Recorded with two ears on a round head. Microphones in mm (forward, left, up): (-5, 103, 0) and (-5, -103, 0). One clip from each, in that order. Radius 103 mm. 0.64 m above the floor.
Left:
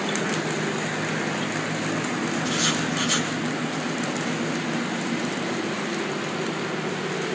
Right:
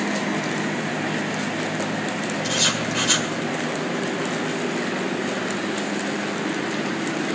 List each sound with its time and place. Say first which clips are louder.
2.4 s writing: right 4 dB; 75° right (ahead or behind), 1.9 m